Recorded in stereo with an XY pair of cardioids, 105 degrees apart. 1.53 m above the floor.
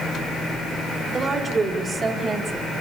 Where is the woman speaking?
40° right, 4.5 m.